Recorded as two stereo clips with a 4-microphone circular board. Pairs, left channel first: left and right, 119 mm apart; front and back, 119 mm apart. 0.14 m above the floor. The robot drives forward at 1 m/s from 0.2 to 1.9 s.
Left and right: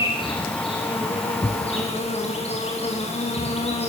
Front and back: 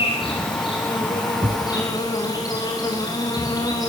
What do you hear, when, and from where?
0.0 s an insect: 45° left, 6 m; by 3.9 s 60° left, 5 m
1.4 s a thud: 150° left, 1.2 m; by 1.7 s 155° left, 1.4 m